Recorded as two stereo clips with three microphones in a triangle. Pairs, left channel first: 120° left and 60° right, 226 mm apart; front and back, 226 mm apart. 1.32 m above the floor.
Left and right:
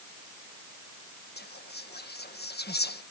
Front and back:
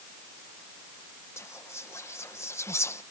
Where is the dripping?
I don't hear dripping.